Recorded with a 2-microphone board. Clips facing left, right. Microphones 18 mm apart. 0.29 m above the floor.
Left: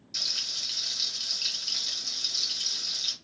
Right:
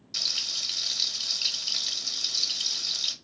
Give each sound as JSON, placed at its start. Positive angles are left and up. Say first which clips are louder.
{"t": 0.1, "sound": "frying", "louder": "right 1 dB", "side_deg": -15, "distance_m": 0.9}